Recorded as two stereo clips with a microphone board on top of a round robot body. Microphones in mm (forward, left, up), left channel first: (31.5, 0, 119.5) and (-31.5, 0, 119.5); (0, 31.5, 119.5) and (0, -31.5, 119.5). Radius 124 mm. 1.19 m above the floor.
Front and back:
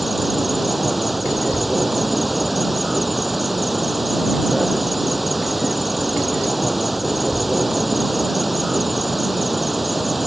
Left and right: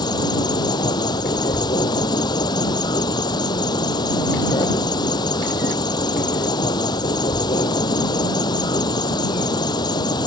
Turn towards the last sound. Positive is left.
turn(degrees=95)